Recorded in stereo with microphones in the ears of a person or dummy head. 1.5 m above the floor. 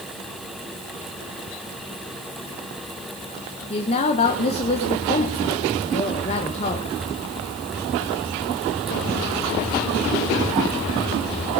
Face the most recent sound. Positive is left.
turn(degrees=35)  # may be behind; listen again after turning